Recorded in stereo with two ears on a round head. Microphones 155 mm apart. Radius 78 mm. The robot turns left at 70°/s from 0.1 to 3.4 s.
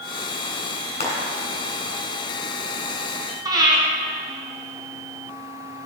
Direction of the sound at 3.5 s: 25° right (ahead or behind).